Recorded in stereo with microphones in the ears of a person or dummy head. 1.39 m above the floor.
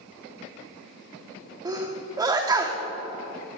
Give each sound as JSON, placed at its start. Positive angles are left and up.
{"t": 1.6, "sound": "a sneeze", "side_deg": -15, "distance_m": 0.6}